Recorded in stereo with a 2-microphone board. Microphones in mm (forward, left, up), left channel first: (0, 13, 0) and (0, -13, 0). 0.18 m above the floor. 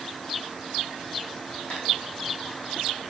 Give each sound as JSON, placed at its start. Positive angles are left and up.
{"t": 1.7, "sound": "tapping", "side_deg": 60, "distance_m": 5.0}